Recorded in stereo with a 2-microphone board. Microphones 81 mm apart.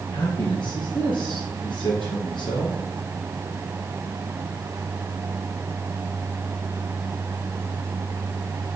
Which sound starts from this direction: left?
A man speaking, at 0.1 s.